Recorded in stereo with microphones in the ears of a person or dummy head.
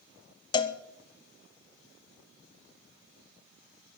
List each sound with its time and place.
0.5 s a cowbell: 20° left (ahead or behind), 0.7 m